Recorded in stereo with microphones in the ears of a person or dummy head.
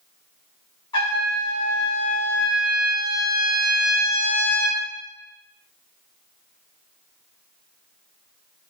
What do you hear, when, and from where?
0.9 s a trumpet: 25° left (ahead or behind), 1.1 m